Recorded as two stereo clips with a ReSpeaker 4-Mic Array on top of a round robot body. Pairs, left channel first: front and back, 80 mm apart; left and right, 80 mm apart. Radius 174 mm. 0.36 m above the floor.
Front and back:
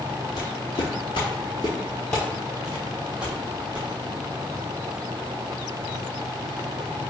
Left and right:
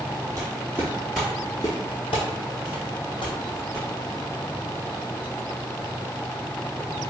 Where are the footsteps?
35° right, 0.9 m; by 3.9 s 105° left, 1.6 m.